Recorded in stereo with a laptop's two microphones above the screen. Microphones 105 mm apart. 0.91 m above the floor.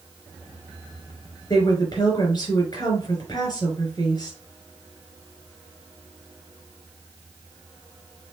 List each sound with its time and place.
1.5 s a woman speaking: 40° left (ahead or behind), 5 m